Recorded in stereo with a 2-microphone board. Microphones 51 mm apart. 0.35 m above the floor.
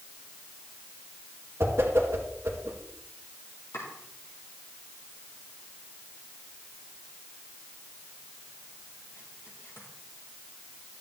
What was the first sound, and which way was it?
A whoosh, 50° right (ahead or behind).